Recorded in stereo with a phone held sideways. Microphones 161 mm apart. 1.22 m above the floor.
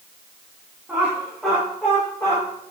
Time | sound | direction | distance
0.9 | laughter | 10° right (ahead or behind) | 2.5 m